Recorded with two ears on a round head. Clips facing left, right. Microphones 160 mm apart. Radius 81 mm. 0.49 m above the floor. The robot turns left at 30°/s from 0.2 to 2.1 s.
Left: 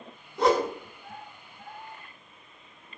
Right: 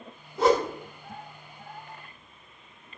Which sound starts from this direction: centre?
A whoosh, at 0.4 s.